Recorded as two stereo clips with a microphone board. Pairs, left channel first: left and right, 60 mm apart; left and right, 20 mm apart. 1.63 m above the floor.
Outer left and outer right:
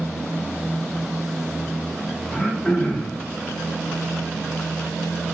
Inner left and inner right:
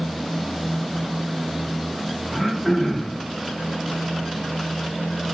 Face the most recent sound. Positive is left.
turn(degrees=5)  # may be behind; listen again after turning